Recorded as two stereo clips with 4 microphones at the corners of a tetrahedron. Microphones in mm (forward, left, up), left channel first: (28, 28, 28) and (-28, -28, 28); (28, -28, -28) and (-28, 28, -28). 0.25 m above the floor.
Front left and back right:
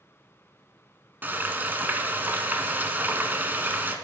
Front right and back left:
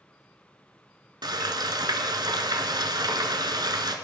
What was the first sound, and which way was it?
Frying, 160° left.